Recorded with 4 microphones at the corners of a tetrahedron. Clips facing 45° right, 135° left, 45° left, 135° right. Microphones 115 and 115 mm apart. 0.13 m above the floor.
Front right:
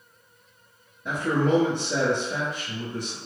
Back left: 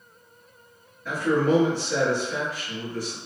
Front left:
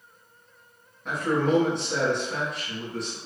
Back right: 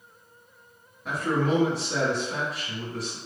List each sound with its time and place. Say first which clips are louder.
1.1 s a man speaking: back left 1 dB, front left 1 dB; 50° right, 1.1 m